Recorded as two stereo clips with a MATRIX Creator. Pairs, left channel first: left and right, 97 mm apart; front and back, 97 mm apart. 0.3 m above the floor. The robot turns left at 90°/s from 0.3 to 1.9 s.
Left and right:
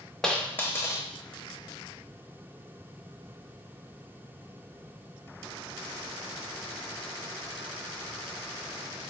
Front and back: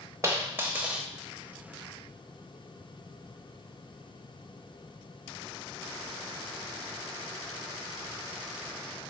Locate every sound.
0.2 s a dropped coin: 165° left, 0.5 m; by 1.1 s 100° left, 0.5 m